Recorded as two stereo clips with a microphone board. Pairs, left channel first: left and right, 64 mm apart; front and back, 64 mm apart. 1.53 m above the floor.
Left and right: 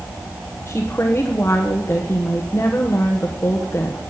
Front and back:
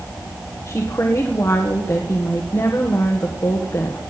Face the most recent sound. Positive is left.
turn(degrees=35)